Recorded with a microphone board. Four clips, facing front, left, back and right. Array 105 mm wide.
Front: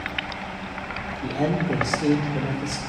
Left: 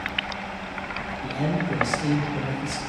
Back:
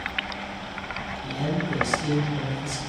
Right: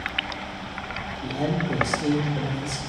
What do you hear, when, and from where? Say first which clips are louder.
1.2 s a man speaking: right 1 dB, front 5 dB; 5° right, 3 m